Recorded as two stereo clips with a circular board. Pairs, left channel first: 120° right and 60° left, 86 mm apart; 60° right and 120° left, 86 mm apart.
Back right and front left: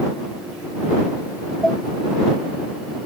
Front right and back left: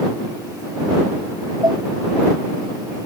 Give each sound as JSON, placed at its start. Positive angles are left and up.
{"t": 1.6, "sound": "dishes clattering", "azimuth_deg": 160}